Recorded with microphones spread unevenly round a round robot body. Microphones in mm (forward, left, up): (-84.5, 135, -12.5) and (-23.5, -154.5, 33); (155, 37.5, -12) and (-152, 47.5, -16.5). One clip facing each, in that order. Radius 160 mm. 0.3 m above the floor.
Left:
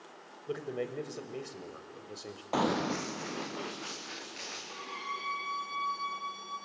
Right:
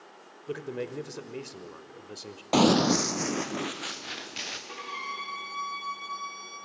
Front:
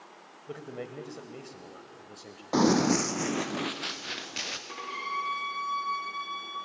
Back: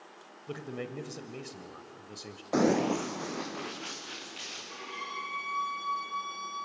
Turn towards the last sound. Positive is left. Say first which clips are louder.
# right 2 dB, front 2 dB
turn(degrees=-40)